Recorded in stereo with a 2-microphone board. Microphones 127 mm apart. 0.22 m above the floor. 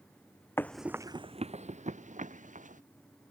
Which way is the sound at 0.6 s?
20° left (ahead or behind).